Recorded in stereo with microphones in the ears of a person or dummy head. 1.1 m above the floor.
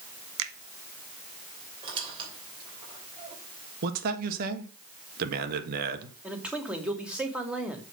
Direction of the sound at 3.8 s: 55° right (ahead or behind).